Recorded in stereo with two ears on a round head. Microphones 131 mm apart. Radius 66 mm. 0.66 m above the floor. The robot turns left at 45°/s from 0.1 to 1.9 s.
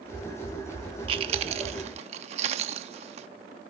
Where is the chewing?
35° right (ahead or behind), 0.7 m; by 3.3 s 45° right (ahead or behind), 0.7 m.